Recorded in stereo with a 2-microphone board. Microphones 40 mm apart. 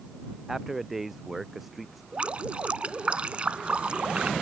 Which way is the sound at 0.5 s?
10° right (ahead or behind).